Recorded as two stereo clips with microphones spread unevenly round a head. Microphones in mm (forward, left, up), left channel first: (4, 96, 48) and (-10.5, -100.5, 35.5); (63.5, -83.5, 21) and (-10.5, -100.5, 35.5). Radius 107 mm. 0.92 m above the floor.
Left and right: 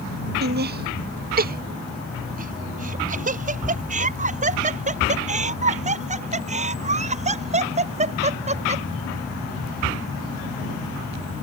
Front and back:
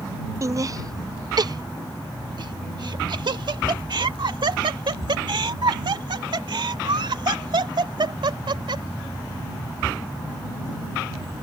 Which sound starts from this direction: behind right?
Laughter, at 0.4 s.